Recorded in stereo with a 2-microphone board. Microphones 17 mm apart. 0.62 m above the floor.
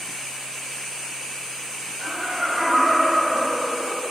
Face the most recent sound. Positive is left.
turn(degrees=-40)  # may be behind; listen again after turning